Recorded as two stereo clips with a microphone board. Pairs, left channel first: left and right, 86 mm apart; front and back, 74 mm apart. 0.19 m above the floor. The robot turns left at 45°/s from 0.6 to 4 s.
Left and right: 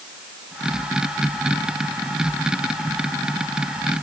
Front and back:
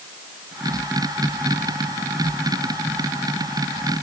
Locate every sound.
Only background noise.